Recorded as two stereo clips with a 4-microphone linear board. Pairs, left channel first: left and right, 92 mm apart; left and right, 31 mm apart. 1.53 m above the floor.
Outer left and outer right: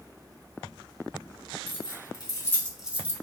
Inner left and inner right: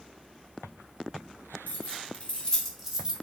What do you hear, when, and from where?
1.7 s keys jangling: 60° left (ahead or behind), 1.6 m; by 3.1 s 30° right (ahead or behind), 0.9 m